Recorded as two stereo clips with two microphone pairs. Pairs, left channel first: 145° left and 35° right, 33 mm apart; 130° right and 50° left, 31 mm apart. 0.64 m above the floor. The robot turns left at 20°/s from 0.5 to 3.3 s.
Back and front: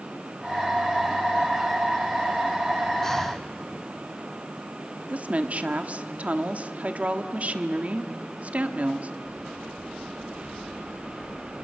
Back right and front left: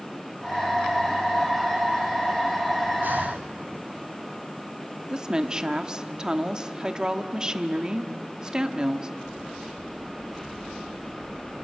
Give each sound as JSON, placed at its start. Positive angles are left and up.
{"t": 3.0, "sound": "breathing", "azimuth_deg": 70, "distance_m": 1.9}
{"t": 5.1, "sound": "a woman speaking", "azimuth_deg": -10, "distance_m": 1.3}